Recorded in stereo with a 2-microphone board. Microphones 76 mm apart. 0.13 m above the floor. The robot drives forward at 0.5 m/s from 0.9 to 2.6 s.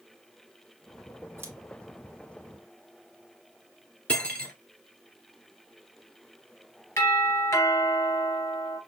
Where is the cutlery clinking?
15° left (ahead or behind), 1.1 m.